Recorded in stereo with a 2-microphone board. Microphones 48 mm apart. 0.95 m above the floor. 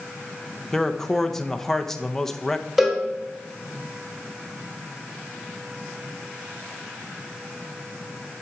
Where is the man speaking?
10° left (ahead or behind), 0.7 m.